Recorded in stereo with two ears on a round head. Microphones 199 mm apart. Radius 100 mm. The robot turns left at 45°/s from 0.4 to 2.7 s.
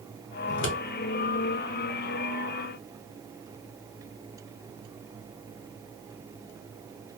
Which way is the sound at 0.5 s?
50° left (ahead or behind).